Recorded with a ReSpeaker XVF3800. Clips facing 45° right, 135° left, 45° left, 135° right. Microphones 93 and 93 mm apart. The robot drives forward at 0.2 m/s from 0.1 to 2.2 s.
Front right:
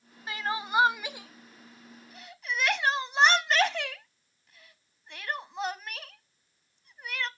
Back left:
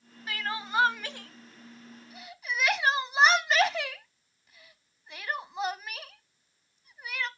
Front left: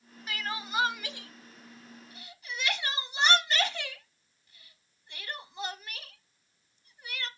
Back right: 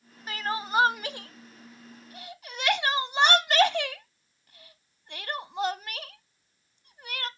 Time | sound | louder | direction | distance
0.3 | crying | front right 2 dB, back right 6 dB | 100° right | 0.5 m